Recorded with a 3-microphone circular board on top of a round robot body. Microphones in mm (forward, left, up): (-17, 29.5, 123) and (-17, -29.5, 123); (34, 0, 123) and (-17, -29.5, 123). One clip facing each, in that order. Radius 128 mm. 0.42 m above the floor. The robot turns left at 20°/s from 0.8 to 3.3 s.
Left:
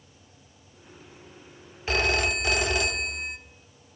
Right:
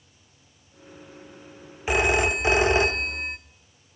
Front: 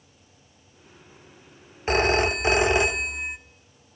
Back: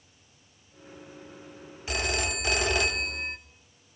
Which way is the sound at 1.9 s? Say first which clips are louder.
Right 3 dB, front 9 dB; 20° right.